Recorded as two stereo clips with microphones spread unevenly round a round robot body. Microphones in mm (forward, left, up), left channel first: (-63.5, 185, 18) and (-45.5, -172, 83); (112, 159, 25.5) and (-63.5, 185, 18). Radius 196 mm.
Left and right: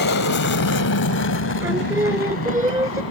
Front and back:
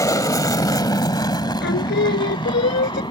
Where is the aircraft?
55° left; by 3.1 s 50° left.